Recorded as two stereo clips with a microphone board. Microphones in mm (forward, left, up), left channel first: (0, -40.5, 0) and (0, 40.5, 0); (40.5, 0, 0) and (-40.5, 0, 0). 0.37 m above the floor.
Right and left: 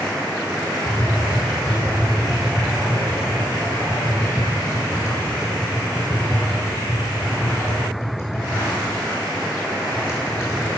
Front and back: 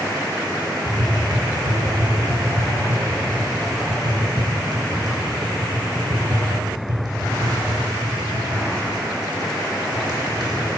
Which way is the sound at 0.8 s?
150° right.